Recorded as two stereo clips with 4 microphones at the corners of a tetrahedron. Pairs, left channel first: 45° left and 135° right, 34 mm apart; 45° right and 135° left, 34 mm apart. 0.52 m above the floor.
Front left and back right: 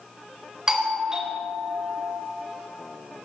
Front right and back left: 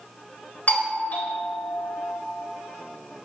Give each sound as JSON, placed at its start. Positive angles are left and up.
{"t": 0.7, "sound": "a doorbell", "azimuth_deg": -65, "distance_m": 3.0}